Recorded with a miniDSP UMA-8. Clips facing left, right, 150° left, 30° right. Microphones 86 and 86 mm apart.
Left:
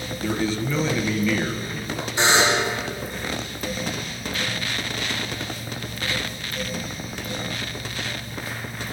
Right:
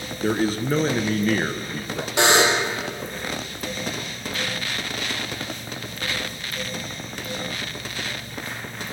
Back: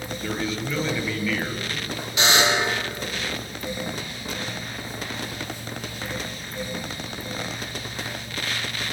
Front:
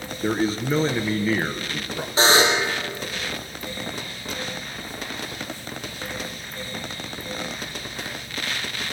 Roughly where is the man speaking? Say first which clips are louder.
Right 3 dB, front 6 dB; right.